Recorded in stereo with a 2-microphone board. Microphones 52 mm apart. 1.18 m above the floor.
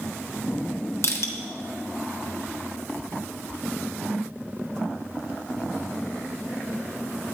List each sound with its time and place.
1.0 s crushing: 65° left (ahead or behind), 1.0 m